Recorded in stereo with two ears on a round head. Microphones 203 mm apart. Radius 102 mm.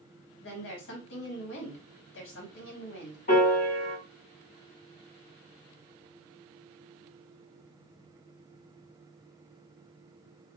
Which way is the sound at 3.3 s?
40° left (ahead or behind).